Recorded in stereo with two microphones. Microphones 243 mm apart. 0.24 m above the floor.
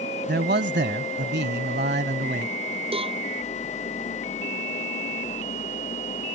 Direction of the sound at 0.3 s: 45° right (ahead or behind).